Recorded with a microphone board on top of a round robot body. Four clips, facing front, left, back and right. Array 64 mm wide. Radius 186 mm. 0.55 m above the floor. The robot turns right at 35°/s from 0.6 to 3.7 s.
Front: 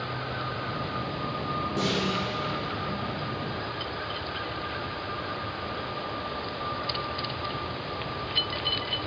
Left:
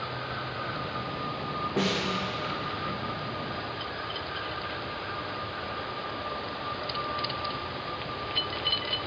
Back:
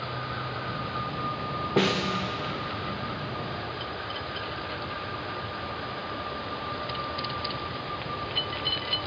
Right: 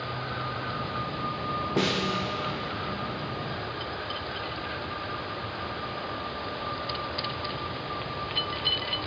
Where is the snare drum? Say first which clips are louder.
Right 1 dB, back 5 dB; 175° right, 0.8 m; by 2.2 s 160° right, 0.8 m.